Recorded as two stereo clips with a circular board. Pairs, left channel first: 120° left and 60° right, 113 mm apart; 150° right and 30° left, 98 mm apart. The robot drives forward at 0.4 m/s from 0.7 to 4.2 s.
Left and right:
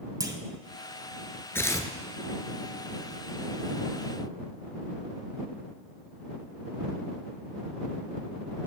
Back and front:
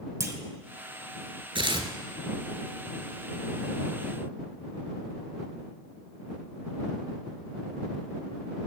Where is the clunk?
20° right, 0.7 m.